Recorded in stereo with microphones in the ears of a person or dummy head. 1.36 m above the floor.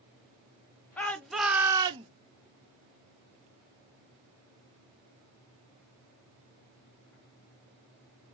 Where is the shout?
10° left (ahead or behind), 1.0 m; by 2.1 s 30° right (ahead or behind), 0.6 m.